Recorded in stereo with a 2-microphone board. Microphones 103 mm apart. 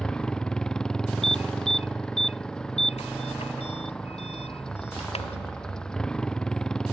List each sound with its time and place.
0.0 s a motorcycle: 5° left (ahead or behind)
1.2 s an alarm: 70° left (ahead or behind)